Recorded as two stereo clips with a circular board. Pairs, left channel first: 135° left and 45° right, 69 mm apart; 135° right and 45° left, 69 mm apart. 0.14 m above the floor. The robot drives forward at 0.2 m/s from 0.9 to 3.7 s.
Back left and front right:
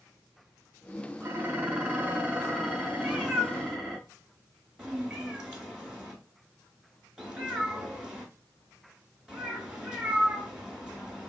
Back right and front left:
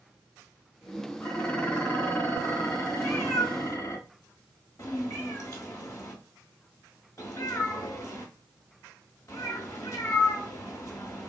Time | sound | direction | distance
1.2 | dishes clattering | 80° right | 0.8 m
3.0 | a cat meowing | 115° right | 0.9 m